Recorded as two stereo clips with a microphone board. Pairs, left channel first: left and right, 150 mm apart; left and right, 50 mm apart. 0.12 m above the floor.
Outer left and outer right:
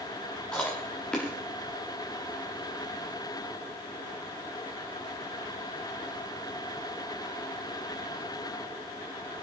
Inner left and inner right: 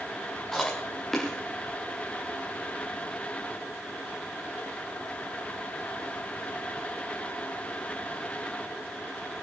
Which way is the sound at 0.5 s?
5° left (ahead or behind).